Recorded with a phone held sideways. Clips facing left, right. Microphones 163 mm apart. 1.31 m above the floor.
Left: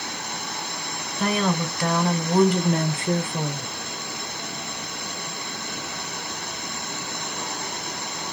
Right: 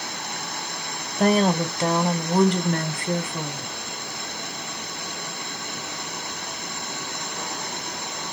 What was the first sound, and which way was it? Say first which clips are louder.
A woman speaking: right 4 dB; 45° right (ahead or behind).